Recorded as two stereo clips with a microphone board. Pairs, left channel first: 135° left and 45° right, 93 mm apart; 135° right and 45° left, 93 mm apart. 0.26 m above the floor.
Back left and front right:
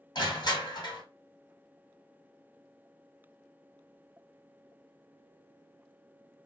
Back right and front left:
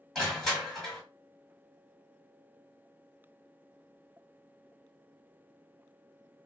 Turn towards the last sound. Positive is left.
turn(degrees=135)